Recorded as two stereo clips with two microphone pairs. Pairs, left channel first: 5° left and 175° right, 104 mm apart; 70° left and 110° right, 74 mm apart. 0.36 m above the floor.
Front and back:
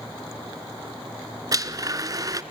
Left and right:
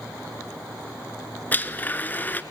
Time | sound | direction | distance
1.5 | a blender | 130° left | 0.6 m